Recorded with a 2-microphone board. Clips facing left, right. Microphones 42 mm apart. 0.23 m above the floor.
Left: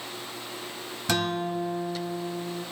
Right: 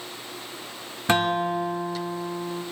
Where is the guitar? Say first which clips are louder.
Right 5 dB; 30° right (ahead or behind), 0.7 m.